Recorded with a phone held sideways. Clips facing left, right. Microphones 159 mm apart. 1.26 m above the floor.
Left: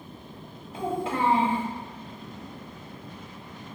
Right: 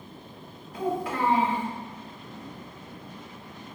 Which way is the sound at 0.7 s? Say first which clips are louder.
Even; 25° left (ahead or behind).